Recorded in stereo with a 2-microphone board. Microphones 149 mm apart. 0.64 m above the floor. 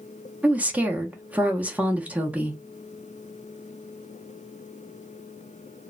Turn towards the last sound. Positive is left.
turn(degrees=-10)  # may be behind; listen again after turning